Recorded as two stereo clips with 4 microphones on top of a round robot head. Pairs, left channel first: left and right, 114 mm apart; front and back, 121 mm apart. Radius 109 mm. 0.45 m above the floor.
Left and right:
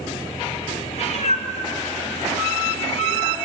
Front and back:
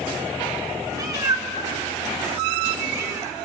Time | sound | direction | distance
0.9 | a cat meowing | 120° left | 3 m